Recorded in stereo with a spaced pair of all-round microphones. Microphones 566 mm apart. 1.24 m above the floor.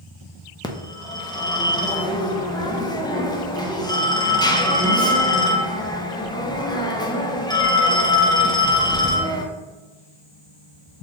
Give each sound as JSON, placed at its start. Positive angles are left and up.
{"t": 0.6, "sound": "a phone ringing", "side_deg": 10, "distance_m": 0.5}